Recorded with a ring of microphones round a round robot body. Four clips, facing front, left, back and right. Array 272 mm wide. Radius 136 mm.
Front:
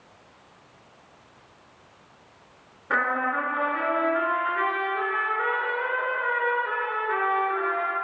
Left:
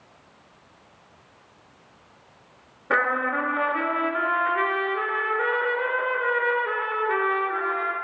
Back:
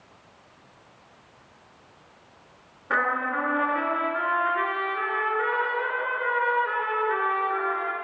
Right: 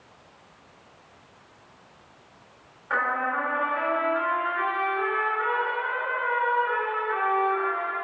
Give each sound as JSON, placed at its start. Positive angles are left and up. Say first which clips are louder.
{"t": 2.9, "sound": "a trumpet", "louder": "left 2 dB, even", "azimuth_deg": 90, "distance_m": 2.5}